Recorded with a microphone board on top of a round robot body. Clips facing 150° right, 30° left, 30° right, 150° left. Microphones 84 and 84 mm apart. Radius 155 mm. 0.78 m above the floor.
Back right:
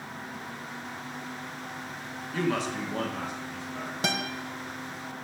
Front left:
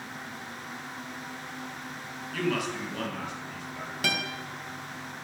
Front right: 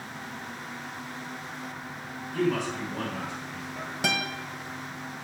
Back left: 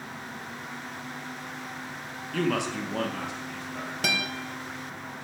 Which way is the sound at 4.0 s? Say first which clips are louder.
Back right 1 dB, front right 1 dB; 100° right.